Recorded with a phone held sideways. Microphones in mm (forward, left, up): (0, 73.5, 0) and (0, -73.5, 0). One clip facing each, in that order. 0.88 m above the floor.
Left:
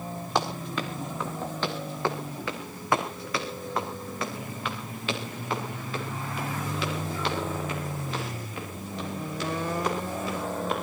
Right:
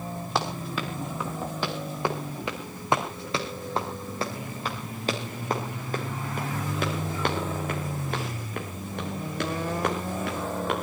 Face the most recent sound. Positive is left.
turn(degrees=-65)  # may be behind; listen again after turning